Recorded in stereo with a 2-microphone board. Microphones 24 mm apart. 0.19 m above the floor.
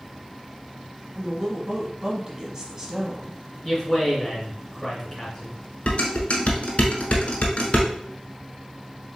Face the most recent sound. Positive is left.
turn(degrees=55)  # may be behind; listen again after turning